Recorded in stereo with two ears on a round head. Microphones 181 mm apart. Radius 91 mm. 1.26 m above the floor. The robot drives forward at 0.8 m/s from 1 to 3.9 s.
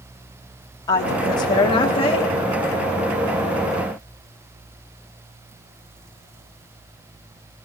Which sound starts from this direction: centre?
A woman speaking, at 0.9 s.